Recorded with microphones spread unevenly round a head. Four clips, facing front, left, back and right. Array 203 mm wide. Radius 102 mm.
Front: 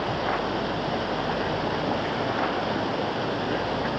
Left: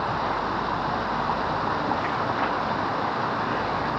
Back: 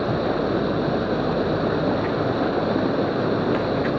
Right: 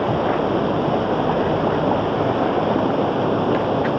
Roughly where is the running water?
Behind right.